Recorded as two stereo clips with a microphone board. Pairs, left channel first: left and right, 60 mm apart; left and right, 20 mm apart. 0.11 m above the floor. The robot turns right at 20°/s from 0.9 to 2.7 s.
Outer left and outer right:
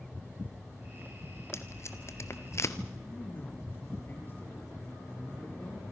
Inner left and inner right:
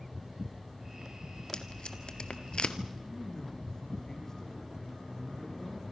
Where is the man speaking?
35° left (ahead or behind), 5 m.